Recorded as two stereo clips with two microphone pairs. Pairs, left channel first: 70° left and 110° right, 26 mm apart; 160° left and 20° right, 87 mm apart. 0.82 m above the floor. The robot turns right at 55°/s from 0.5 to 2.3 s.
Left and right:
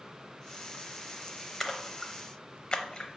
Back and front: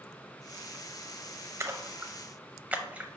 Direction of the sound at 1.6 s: 5° left.